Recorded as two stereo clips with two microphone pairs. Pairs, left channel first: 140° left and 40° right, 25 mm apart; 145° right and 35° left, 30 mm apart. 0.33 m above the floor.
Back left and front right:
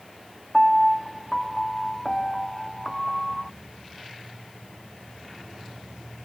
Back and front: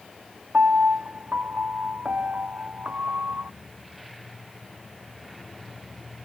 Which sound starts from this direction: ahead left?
A piano, at 0.5 s.